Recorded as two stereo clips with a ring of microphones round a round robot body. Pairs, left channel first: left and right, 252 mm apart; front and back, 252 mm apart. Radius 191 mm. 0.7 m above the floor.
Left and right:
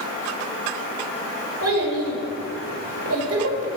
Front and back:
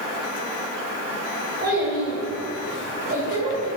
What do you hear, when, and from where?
1.6 s a child speaking: 115° right, 2 m